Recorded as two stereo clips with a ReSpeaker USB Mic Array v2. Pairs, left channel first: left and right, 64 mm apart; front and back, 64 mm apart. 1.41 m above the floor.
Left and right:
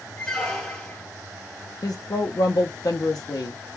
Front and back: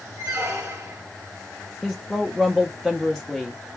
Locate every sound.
0.2 s a squeak: 170° left, 1.4 m
1.8 s a woman speaking: 85° left, 0.5 m